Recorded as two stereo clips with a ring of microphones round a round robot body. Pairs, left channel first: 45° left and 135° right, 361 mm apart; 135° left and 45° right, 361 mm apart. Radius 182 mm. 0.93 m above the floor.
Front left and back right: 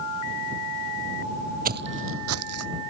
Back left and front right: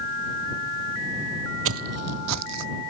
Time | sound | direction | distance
1.6 | footsteps | 80° right | ?